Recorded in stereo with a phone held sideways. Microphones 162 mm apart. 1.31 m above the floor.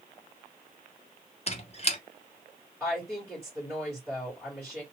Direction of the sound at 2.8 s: 5° right (ahead or behind).